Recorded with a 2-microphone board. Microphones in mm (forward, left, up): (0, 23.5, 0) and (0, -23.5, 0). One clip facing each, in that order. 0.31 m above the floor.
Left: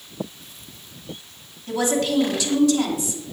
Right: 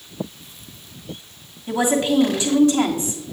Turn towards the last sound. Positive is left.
turn(degrees=-35)  # may be behind; listen again after turning